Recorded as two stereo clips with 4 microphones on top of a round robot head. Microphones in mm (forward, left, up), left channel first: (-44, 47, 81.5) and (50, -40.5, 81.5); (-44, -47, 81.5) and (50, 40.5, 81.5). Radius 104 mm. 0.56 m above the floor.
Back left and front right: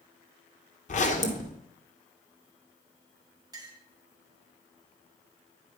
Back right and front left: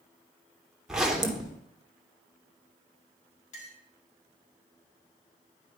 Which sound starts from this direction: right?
A clink, at 3.5 s.